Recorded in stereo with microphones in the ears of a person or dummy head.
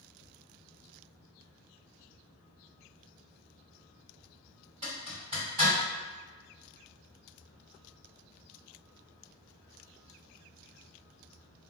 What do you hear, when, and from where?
4.8 s a zipper: 35° right (ahead or behind), 1.7 m